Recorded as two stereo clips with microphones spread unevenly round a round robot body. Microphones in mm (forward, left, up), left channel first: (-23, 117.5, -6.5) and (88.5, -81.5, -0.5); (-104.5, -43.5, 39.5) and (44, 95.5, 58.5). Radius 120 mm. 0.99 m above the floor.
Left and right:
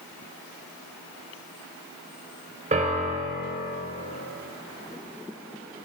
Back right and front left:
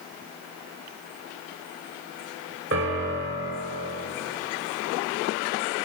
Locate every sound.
2.7 s a piano: straight ahead, 1.2 m